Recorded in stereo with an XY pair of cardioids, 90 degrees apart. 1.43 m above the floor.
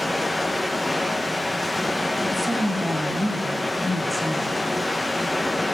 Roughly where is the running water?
Ahead.